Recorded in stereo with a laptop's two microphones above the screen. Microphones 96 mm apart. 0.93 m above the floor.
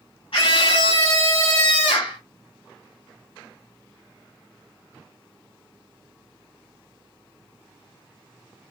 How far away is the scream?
About 1.8 m.